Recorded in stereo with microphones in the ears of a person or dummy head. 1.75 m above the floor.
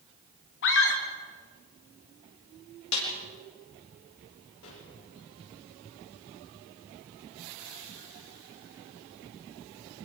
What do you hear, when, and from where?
0.6 s a scream: 60° left (ahead or behind), 3 m
2.9 s a snare drum: 80° left, 4.5 m
4.6 s a gunshot: 70° left (ahead or behind), 6.5 m